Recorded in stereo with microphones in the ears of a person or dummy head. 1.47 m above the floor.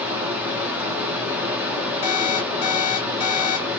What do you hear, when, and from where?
0.0 s running water: 5° right (ahead or behind), 0.7 m
2.0 s an alarm clock: 35° left (ahead or behind), 0.8 m